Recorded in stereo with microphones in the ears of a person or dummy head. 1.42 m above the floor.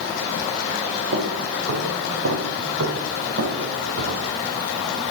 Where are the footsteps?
70° right (ahead or behind), 4 m; by 4.4 s 55° right (ahead or behind), 4.5 m.